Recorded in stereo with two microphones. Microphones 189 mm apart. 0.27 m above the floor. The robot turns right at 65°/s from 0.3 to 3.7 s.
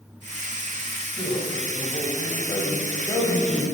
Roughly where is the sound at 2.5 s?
Behind left.